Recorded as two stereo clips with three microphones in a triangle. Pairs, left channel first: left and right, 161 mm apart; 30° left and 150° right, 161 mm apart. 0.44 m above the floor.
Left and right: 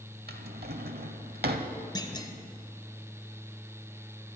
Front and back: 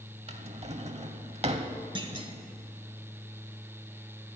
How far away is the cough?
No cough in this recording.